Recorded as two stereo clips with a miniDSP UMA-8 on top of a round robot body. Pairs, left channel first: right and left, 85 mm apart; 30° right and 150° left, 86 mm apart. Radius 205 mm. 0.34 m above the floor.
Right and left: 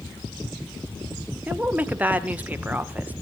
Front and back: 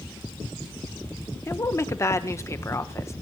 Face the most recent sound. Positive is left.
turn(degrees=20)